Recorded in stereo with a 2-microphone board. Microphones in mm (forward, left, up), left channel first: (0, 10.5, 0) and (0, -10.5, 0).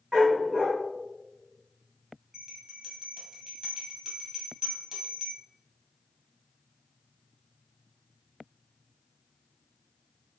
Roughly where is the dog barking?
Right.